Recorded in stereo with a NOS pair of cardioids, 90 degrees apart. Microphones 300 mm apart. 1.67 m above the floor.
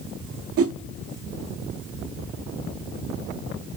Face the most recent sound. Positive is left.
turn(degrees=-50)